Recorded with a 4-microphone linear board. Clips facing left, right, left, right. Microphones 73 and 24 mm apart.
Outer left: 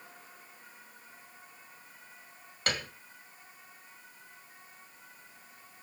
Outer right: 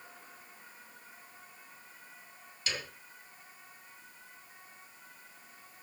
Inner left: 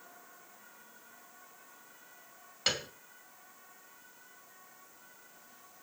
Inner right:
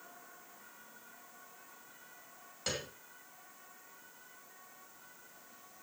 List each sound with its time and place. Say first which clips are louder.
2.7 s a piano: outer left 5 dB, inner left 6 dB; 55° left (ahead or behind), 2.0 m